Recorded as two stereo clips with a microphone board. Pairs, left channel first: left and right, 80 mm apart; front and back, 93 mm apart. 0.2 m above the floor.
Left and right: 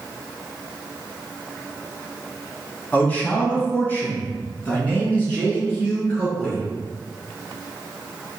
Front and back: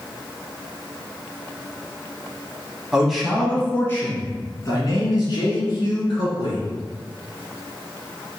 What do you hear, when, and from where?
2.9 s a man speaking: 115° left, 1.0 m; by 6.6 s 20° left, 2.5 m